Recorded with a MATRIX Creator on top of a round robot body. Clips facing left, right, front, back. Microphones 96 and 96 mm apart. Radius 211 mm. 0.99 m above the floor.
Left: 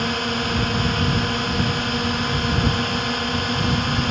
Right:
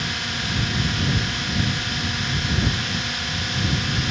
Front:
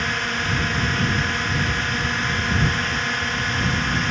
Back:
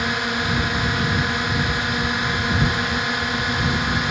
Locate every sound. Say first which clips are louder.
0.0 s a drone: left 6 dB, back 2 dB; 105° left